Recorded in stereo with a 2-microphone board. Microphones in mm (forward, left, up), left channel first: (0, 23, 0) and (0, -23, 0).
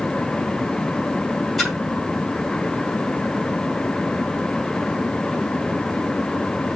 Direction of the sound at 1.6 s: Centre (ahead or behind).